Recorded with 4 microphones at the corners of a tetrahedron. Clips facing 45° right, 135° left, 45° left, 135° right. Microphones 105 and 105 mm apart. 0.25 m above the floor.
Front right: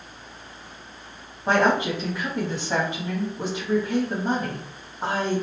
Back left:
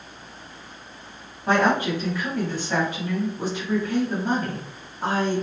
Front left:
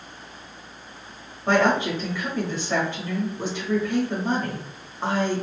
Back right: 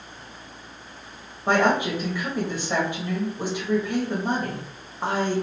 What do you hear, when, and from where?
1.5 s a woman speaking: 75° right, 1.0 m